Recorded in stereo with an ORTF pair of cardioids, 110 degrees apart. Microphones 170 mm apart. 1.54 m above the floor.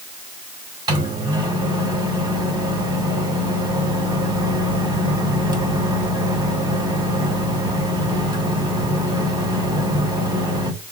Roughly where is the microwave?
Ahead right.